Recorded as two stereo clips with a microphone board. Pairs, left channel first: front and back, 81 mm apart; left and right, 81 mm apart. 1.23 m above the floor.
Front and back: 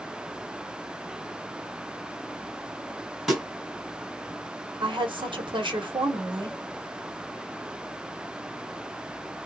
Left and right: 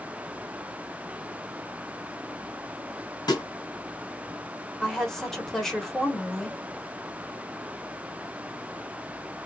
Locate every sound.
3.3 s a snare drum: 95° left, 1.7 m
4.8 s a woman speaking: 175° left, 1.1 m